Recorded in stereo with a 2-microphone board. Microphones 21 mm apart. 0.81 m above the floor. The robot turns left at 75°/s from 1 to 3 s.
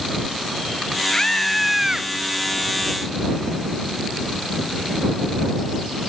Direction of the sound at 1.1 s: 35° left.